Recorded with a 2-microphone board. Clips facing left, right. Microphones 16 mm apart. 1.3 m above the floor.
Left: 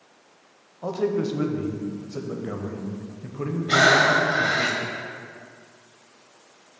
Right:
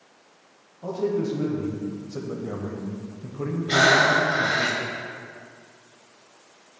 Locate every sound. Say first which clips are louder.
0.8 s a man speaking: left 1 dB; 50° left (ahead or behind), 0.7 m
3.7 s breathing: left 1 dB; 70° left (ahead or behind), 0.8 m